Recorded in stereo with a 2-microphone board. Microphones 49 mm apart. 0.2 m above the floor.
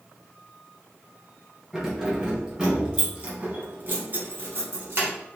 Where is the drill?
I don't hear a drill.